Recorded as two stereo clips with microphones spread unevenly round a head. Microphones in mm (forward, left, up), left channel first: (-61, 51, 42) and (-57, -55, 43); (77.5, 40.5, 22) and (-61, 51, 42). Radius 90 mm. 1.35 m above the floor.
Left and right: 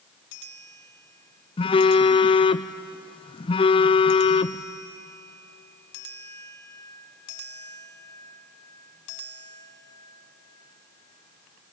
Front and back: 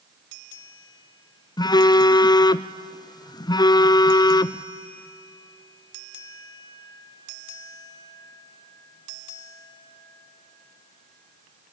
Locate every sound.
1.6 s a phone buzzing: 50° left, 0.5 m